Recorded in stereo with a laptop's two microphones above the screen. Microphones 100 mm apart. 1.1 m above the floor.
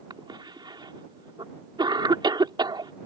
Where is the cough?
50° right (ahead or behind).